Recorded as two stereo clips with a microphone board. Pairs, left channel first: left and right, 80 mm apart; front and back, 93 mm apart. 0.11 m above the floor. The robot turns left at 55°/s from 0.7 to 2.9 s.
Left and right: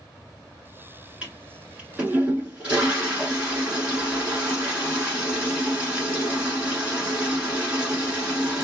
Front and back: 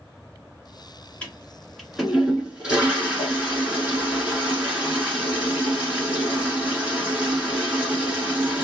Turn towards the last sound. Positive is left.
turn(degrees=-140)